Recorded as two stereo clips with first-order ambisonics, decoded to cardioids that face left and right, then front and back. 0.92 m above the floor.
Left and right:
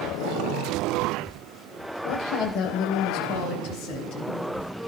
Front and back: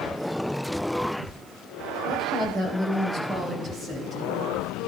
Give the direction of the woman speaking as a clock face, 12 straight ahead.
8 o'clock.